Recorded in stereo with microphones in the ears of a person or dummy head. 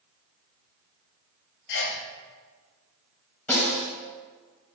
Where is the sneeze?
60° left (ahead or behind), 1.1 m.